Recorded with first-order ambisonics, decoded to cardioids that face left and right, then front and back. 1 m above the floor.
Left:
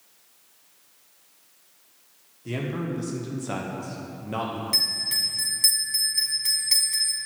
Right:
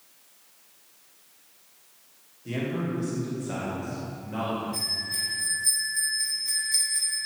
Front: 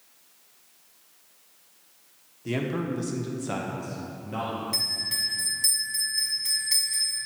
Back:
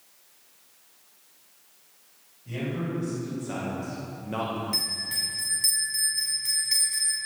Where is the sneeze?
I don't hear a sneeze.